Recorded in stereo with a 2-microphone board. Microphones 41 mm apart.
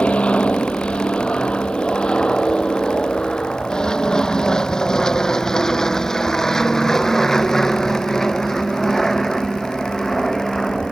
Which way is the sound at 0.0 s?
30° left (ahead or behind).